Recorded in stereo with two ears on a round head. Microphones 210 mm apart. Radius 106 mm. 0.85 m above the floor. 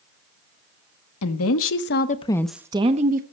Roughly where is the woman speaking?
Left.